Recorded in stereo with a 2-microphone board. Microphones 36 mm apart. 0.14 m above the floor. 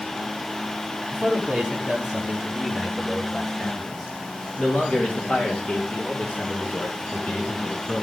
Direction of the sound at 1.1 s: 20° right (ahead or behind).